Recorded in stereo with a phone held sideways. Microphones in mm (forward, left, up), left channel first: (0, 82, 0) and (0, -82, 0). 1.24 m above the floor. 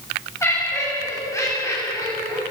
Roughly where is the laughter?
Centre.